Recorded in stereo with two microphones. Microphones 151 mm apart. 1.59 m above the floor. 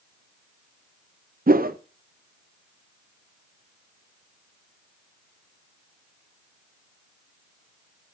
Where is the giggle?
No giggle in this recording.